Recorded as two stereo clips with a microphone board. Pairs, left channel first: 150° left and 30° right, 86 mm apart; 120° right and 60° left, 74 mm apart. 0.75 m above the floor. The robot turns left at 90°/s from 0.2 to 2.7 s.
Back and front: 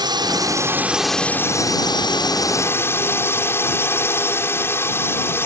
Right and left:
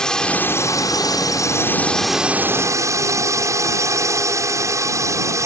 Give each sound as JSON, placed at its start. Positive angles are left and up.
{"t": 0.0, "sound": "a drone", "azimuth_deg": -40}